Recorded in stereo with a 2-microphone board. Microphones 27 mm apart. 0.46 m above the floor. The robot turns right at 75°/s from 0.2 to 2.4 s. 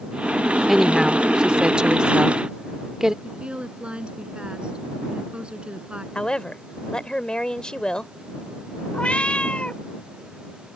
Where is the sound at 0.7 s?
10° right (ahead or behind); by 3.1 s 20° right (ahead or behind).